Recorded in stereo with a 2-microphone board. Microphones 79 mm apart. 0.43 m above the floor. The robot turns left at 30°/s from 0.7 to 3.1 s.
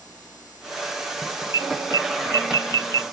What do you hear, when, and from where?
1.5 s an alarm: 45° right (ahead or behind); by 3.0 s 60° right (ahead or behind)